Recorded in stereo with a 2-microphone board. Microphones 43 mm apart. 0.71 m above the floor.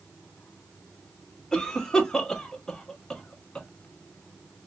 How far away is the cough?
About 1.1 m.